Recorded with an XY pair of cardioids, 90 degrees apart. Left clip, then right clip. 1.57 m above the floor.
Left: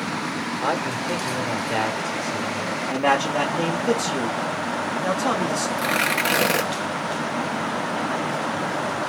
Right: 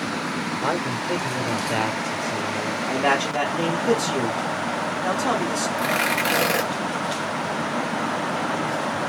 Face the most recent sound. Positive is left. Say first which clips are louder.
# even
turn(degrees=20)